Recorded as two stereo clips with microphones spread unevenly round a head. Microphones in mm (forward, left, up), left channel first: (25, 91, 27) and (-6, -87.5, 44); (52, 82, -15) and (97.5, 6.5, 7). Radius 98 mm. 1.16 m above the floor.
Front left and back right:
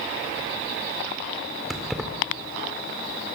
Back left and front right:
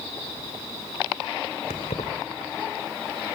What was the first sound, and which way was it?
Keys jangling, 170° left.